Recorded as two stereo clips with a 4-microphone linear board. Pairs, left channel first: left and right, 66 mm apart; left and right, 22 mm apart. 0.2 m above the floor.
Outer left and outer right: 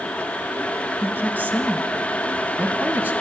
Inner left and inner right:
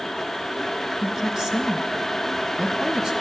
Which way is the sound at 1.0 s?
30° right (ahead or behind).